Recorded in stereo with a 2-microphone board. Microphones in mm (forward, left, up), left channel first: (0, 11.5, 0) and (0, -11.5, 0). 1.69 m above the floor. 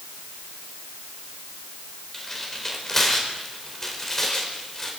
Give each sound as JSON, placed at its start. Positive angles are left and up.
{"t": 2.1, "sound": "tearing paper", "side_deg": 25, "distance_m": 4.5}